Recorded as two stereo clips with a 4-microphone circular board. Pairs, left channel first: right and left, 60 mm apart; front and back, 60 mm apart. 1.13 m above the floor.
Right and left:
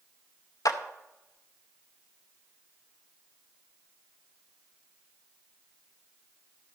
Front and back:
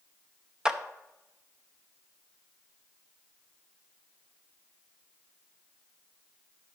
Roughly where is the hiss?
No hiss in this recording.